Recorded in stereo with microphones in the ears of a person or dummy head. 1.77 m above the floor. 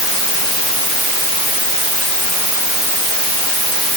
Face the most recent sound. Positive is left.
No sound to turn to.